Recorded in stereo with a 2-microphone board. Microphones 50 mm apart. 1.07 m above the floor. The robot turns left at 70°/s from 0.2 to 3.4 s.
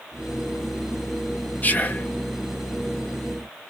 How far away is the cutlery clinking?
I don't hear cutlery clinking.